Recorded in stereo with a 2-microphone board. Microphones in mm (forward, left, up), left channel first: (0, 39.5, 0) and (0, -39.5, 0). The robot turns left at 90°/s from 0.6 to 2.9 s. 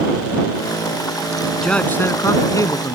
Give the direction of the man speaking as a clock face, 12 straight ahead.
6 o'clock.